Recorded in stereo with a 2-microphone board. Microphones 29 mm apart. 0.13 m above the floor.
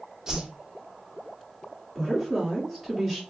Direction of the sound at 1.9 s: 5° right (ahead or behind).